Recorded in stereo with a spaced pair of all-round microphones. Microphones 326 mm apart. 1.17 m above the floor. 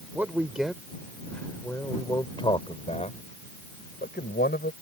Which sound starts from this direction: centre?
A man speaking, at 0.1 s.